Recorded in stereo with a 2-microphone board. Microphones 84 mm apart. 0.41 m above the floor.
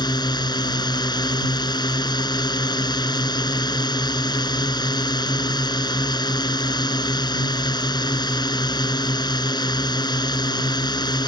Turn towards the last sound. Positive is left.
turn(degrees=55)  # may be behind; listen again after turning